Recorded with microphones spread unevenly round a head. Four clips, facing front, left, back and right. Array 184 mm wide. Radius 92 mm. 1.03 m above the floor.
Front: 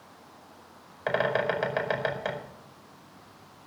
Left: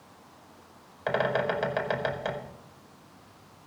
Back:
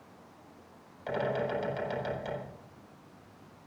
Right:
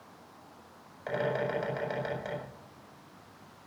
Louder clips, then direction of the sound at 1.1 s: Left 4 dB, front 5 dB; 35° left.